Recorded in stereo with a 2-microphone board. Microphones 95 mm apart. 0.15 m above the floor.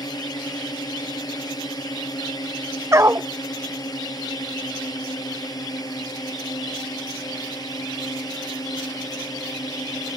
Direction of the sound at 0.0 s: 45° left (ahead or behind).